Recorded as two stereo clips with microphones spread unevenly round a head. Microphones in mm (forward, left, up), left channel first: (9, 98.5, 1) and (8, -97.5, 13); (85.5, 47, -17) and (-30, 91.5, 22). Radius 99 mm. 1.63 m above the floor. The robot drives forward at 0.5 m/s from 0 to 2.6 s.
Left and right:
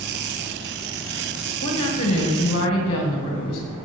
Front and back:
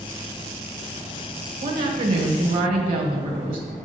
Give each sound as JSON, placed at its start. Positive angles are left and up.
{"t": 1.6, "sound": "a woman speaking", "azimuth_deg": 145, "distance_m": 1.8}